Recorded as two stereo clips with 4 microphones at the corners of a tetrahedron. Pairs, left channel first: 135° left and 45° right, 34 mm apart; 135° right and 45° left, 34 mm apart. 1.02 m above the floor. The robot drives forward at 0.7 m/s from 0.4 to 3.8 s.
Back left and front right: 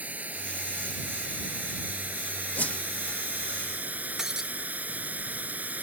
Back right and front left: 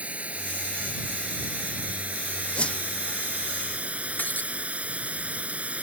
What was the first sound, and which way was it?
Running water, 5° right.